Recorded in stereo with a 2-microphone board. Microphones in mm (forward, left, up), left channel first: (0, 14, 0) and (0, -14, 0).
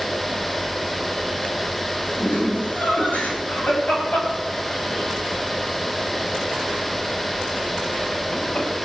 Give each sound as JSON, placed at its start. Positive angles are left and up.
{"t": 2.2, "sound": "laughter", "side_deg": 85, "distance_m": 6.5}